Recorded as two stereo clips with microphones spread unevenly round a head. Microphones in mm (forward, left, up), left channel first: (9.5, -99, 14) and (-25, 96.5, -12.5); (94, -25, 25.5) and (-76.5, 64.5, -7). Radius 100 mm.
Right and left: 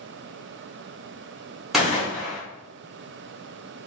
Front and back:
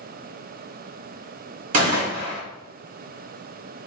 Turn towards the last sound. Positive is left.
turn(degrees=180)